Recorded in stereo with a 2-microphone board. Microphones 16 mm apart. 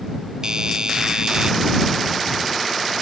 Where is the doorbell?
40° right (ahead or behind).